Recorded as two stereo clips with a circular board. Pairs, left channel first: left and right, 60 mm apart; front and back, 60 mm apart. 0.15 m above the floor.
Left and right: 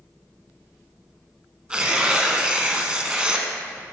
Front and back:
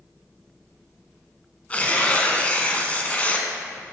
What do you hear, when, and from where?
1.7 s tearing paper: 35° right, 0.6 m